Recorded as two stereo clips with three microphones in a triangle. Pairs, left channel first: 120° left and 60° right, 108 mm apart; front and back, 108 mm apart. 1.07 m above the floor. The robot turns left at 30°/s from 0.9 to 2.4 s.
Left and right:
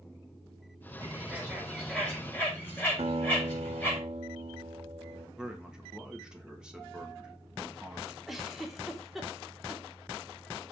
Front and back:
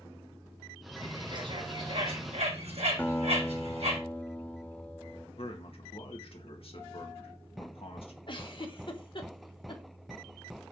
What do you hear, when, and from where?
1.0 s a bird: 130° right, 4.5 m; by 4.0 s 170° right, 4.5 m
3.0 s a guitar: 75° right, 1.0 m
5.4 s a man speaking: 25° left, 1.4 m
8.3 s a giggle: 30° left, 1.3 m